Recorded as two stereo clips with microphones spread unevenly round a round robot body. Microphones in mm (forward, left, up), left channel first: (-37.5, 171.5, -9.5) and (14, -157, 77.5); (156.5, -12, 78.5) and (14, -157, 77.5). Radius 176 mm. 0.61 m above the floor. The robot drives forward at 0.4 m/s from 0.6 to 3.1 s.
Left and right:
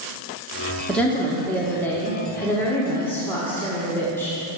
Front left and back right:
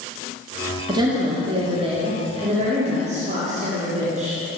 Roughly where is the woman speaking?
Behind.